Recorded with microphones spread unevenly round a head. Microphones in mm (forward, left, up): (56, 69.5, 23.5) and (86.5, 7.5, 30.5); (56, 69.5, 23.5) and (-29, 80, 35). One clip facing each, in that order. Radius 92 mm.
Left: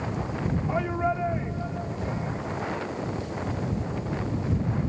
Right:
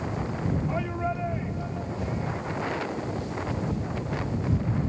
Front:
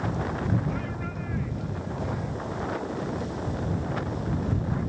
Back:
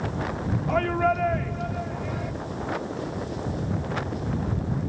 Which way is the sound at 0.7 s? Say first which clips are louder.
Left 3 dB, back 11 dB; 170° right.